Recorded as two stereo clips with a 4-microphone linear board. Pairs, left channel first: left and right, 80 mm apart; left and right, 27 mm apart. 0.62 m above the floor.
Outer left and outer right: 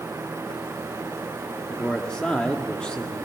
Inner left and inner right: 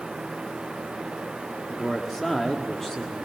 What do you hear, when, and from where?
1.7 s a man speaking: 10° left (ahead or behind), 1.4 m